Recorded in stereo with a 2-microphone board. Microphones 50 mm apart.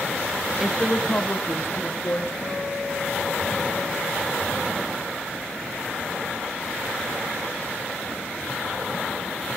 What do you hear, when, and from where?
0.6 s a woman speaking: 10° right (ahead or behind), 1.0 m; by 2.3 s 70° left (ahead or behind), 2.5 m
2.4 s a guitar: 25° left (ahead or behind), 8 m